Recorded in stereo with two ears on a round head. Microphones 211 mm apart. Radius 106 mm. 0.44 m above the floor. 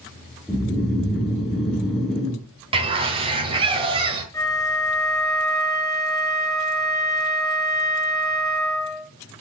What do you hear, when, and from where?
0.5 s snoring: centre (ahead or behind), 5.5 m
2.7 s a bird: 25° right (ahead or behind), 1.8 m
4.3 s a flute: 15° left (ahead or behind), 4 m